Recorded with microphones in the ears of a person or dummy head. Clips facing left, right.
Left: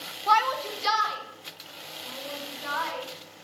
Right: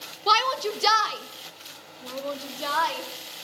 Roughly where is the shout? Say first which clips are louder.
Even; right.